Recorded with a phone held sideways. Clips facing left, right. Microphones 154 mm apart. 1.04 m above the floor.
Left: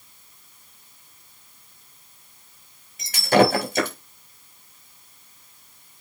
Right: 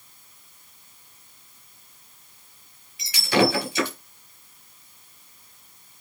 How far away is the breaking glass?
About 4.5 m.